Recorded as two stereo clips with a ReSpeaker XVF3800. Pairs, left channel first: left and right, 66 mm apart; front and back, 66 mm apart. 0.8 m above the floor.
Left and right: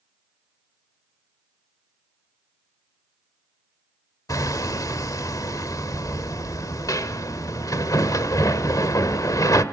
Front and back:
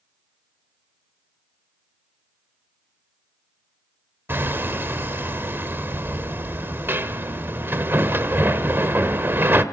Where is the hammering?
125° left, 1.4 m.